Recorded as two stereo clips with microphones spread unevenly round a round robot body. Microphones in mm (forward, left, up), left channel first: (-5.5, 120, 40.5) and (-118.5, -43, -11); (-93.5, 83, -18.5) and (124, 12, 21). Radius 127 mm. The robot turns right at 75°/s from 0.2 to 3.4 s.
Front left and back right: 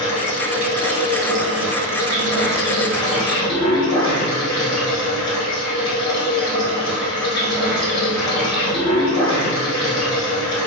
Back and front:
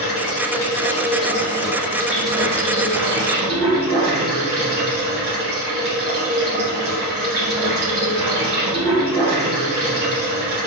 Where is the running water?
115° left, 1.7 m; by 10.7 s 5° right, 1.7 m.